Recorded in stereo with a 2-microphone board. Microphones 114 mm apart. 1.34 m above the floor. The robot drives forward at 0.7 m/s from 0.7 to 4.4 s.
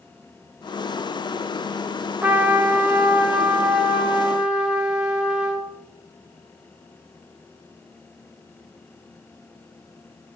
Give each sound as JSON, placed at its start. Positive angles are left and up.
{"t": 2.2, "sound": "a trumpet", "side_deg": -15, "distance_m": 0.7}